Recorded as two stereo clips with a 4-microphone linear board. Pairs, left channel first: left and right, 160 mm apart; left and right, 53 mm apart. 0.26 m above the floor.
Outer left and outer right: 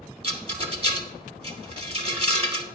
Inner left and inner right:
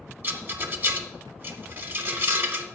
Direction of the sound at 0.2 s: 40° right (ahead or behind).